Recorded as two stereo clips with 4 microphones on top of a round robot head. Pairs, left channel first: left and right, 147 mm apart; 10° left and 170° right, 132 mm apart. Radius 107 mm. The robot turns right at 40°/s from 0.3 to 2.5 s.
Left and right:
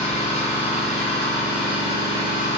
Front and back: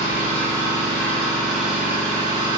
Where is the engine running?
50° left, 1.2 m; by 2.6 s 140° left, 1.2 m.